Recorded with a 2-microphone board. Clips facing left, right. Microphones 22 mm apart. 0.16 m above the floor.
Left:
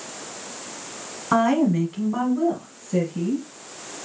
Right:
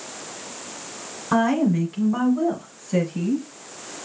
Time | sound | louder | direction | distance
1.3 | a woman speaking | left 1 dB | 15° left (ahead or behind) | 1.2 m